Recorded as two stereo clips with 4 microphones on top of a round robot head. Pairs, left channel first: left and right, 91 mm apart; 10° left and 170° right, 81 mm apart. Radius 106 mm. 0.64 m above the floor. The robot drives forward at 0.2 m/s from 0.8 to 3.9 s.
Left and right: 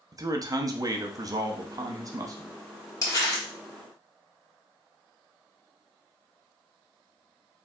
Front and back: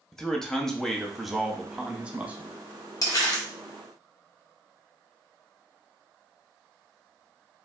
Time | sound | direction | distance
0.1 | a man speaking | 70° right | 0.7 m
3.0 | crumpling | 45° left | 1.7 m